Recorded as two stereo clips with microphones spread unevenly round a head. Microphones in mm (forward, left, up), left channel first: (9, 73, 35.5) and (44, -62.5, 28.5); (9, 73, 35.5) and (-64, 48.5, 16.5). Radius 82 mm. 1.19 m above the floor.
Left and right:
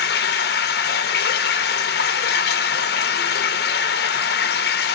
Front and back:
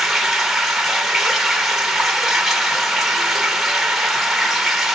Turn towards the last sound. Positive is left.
turn(degrees=105)